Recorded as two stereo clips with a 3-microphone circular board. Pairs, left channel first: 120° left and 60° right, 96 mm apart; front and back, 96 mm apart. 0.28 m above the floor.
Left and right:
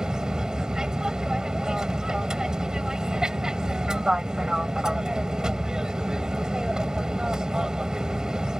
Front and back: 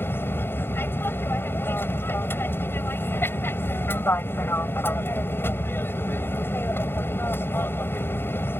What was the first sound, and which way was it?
An aircraft, 10° left.